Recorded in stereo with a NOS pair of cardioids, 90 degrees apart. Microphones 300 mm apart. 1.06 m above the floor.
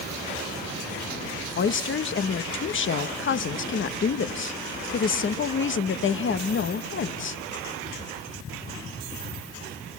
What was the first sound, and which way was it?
A woman speaking, 40° left.